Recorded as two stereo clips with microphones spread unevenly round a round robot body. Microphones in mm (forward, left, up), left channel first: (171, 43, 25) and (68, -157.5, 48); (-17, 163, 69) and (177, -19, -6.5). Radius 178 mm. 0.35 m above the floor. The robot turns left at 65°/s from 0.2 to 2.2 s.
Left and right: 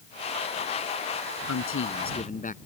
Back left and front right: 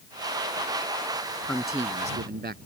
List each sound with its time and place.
1.5 s a man speaking: 55° left; by 2.6 s 10° left